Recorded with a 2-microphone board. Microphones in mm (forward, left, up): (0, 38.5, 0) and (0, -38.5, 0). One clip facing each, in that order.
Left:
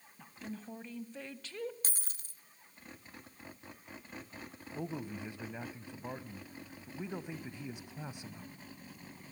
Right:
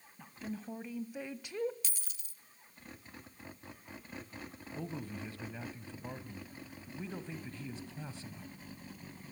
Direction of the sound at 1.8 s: 45° left (ahead or behind).